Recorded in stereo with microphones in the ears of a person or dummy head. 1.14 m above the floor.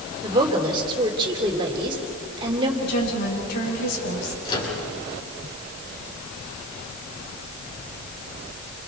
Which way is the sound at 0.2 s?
30° right (ahead or behind).